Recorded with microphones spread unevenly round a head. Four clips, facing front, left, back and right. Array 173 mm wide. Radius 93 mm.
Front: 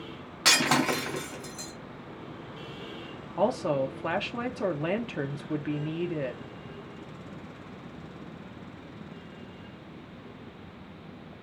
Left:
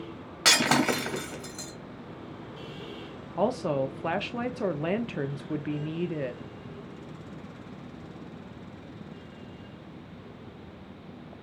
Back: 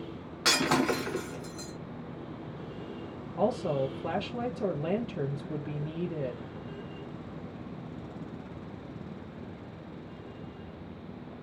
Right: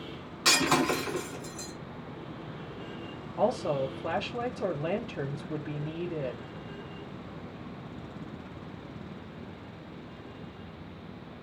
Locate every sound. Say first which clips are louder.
0.5 s breaking glass: left 1 dB, front 1 dB; 75° left, 2.5 m
3.4 s a woman speaking: left 1 dB, front 2 dB; 115° left, 0.6 m